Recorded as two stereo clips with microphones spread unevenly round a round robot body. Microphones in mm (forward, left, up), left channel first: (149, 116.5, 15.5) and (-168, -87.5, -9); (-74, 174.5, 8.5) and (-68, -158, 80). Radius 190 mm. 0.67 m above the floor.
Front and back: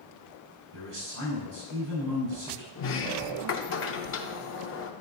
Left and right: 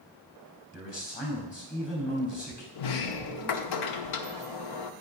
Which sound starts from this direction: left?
A sliding door, at 2.8 s.